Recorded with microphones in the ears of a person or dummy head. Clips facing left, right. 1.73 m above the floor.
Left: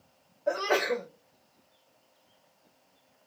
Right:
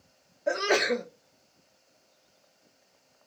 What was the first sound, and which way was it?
A sneeze, 30° right (ahead or behind).